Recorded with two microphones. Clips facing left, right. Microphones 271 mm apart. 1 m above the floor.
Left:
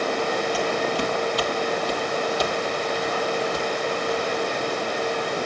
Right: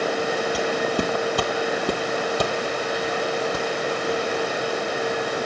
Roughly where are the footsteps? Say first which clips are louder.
Right 1 dB; right.